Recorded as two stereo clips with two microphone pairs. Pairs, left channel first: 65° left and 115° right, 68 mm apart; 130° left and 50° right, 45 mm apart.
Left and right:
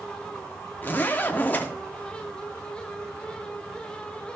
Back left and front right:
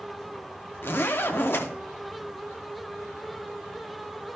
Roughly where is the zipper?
Behind left.